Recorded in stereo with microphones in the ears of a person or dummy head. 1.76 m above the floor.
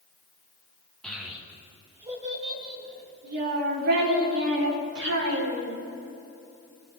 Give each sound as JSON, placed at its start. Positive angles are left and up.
{"t": 1.0, "sound": "a child speaking", "side_deg": 5, "distance_m": 2.5}